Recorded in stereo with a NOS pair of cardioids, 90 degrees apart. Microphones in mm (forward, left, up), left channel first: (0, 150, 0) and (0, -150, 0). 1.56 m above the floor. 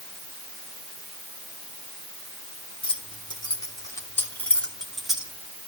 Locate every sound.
2.8 s keys jangling: 20° left, 3 m; by 5.3 s 5° right, 2.5 m